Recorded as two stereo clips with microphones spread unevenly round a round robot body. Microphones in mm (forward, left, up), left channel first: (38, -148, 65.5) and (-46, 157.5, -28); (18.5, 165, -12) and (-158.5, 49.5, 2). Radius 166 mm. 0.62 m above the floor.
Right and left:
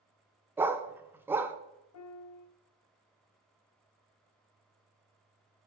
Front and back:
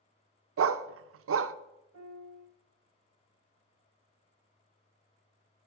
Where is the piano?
120° right, 0.7 m.